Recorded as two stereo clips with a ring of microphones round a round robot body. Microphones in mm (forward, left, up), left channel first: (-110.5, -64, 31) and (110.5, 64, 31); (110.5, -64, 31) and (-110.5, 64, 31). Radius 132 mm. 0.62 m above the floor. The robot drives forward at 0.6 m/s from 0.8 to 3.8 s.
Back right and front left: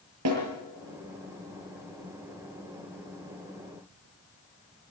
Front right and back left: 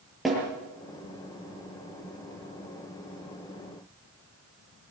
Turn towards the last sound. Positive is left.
turn(degrees=75)